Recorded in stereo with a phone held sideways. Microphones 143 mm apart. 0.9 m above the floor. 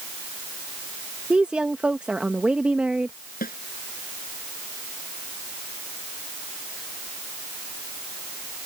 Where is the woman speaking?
10° right (ahead or behind).